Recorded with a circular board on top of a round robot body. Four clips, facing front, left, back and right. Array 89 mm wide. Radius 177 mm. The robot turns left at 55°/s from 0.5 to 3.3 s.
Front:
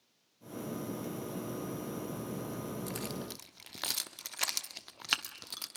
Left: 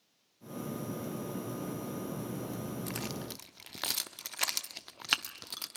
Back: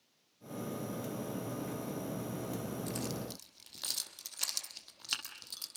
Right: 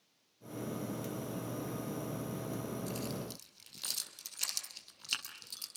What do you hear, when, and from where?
2.9 s keys jangling: 85° left, 1.3 m; by 5.8 s 60° left, 1.3 m